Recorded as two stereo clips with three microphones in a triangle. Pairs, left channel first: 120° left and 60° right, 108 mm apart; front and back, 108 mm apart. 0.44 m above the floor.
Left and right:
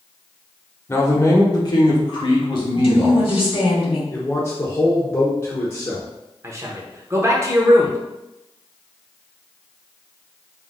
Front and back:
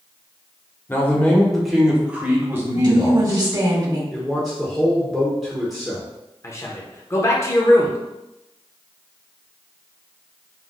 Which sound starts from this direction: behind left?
A woman speaking, at 2.7 s.